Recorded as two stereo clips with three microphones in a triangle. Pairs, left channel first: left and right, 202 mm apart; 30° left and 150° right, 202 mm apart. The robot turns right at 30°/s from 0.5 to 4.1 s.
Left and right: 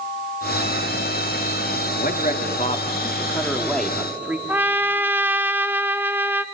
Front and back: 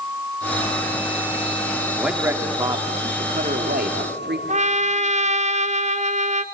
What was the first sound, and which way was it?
A man speaking, 125° left.